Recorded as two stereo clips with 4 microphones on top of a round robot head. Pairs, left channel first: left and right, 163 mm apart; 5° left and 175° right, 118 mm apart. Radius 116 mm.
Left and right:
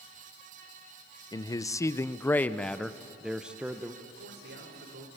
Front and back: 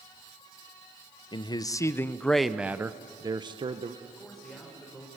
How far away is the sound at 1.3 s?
About 0.9 m.